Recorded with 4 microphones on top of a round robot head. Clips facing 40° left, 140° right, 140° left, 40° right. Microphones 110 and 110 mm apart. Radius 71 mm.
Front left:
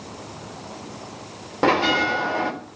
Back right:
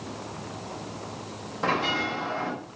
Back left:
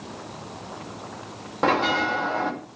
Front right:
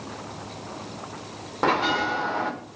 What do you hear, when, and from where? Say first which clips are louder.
1.6 s a bell: front left 8 dB, back left 1 dB; 50° left, 3.5 m